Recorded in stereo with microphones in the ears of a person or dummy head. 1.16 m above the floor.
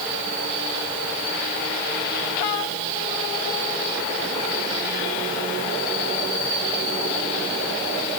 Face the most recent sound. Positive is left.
No sound to turn to.